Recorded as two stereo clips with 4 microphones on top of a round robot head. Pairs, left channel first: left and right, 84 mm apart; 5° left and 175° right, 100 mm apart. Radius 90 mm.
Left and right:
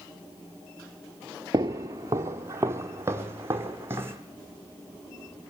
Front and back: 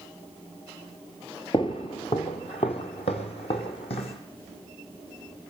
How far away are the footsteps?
About 0.8 m.